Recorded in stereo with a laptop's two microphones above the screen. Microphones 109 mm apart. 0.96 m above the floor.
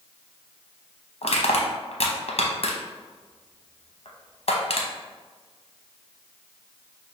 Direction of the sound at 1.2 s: 65° left (ahead or behind).